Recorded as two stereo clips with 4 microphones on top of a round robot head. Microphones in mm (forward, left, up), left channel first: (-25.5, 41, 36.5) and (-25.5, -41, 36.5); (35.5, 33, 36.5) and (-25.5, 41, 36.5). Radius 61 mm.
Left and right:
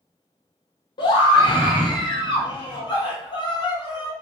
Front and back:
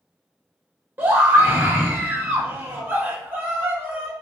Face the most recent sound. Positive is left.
turn(degrees=115)